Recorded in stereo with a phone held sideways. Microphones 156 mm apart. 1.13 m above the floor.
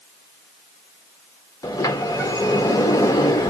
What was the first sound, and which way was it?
A sliding door, 20° left (ahead or behind).